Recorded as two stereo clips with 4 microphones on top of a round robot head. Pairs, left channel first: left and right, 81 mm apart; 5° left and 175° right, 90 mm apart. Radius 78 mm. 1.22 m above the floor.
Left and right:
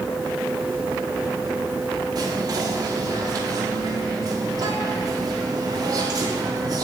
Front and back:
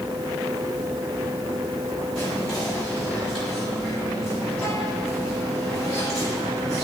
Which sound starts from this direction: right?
Whispering, at 2.1 s.